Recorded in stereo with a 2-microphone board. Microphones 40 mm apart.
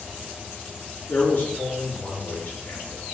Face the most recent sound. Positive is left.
turn(degrees=60)  # may be behind; listen again after turning